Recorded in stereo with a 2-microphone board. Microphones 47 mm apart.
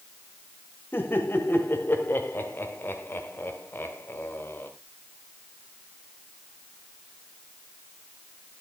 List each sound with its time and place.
0.9 s laughter: 55° left (ahead or behind), 2 m